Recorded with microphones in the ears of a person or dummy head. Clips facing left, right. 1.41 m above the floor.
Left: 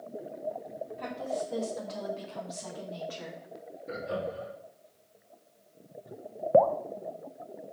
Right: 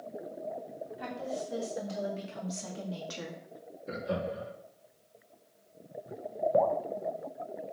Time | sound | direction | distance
1.0 | a woman speaking | 10° right (ahead or behind) | 3 m
3.9 | laughter | 45° right (ahead or behind) | 3 m
6.5 | dripping | 50° left (ahead or behind) | 0.6 m